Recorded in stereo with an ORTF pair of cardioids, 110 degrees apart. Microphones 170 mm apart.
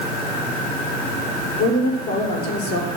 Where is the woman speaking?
70° left, 4.5 m.